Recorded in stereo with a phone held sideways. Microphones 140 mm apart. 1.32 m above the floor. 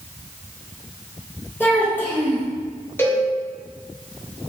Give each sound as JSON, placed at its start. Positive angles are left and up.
{"t": 1.6, "sound": "a child speaking", "side_deg": 15, "distance_m": 1.3}
{"t": 3.0, "sound": "a cowbell", "side_deg": 15, "distance_m": 0.8}